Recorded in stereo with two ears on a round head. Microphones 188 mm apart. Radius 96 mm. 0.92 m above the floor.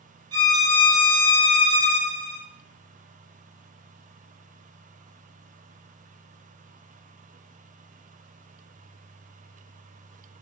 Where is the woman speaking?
I don't hear a woman speaking.